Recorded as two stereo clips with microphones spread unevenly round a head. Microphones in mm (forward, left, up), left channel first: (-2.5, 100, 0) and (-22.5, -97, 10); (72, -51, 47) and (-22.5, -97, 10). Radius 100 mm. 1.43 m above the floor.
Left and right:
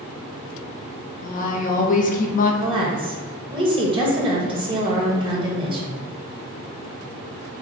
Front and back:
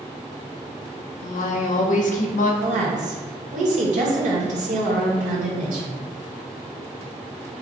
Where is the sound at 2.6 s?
160° right, 1.3 m.